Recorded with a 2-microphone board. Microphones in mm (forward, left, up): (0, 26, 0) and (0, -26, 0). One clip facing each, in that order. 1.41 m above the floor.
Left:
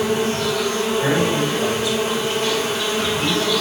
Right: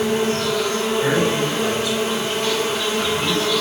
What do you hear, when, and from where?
0.0 s an insect: 5° left (ahead or behind), 1.3 m
1.0 s a man speaking: 5° left (ahead or behind), 2.0 m